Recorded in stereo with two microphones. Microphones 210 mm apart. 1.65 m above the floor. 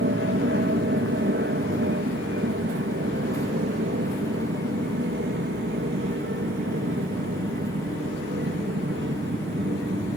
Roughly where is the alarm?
No alarm in this recording.